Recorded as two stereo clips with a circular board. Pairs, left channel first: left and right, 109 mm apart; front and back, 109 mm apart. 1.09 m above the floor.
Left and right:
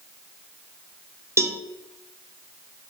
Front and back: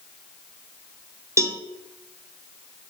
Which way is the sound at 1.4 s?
135° right.